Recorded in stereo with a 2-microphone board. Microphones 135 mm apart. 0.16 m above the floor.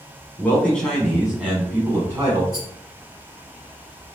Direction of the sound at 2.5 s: 30° left (ahead or behind).